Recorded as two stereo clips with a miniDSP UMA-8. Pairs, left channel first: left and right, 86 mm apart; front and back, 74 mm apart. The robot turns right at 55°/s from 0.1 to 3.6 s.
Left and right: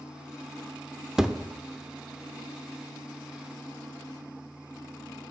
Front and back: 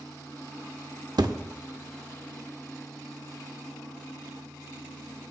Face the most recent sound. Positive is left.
turn(degrees=-40)